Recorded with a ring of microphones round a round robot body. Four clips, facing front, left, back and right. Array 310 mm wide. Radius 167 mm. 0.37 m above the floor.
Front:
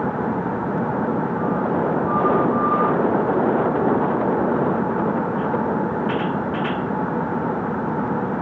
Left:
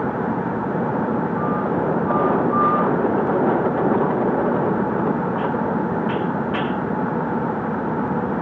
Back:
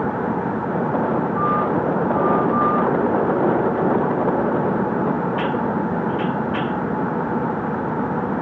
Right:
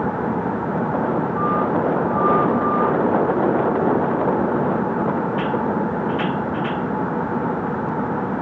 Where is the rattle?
I don't hear a rattle.